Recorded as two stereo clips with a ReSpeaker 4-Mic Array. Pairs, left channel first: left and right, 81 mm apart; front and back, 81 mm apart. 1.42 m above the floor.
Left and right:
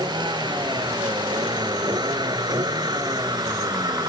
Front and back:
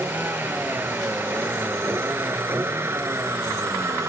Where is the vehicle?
115° right; by 4.1 s 125° right.